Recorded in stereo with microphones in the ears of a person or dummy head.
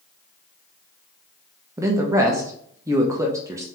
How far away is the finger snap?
No finger snap in this recording.